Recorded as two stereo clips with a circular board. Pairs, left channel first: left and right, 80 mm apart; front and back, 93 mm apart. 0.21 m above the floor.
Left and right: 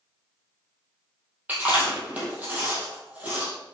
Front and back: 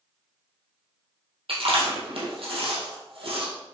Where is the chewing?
160° right, 2.5 m.